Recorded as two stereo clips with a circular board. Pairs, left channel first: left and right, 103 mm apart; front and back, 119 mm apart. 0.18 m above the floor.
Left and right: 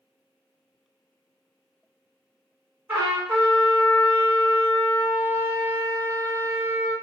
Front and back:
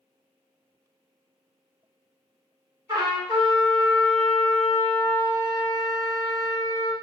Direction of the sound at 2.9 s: 160° right.